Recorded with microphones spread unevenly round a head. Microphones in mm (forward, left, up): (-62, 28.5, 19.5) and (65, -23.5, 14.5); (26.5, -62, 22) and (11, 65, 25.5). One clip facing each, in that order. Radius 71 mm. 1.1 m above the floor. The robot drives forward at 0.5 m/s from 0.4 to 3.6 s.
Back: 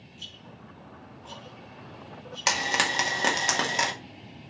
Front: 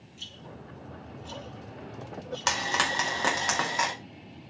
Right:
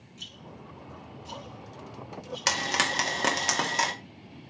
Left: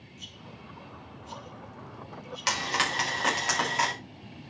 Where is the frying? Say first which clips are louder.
Back 1 dB, even; 125° right, 2.0 m; by 3.9 s 135° right, 2.5 m.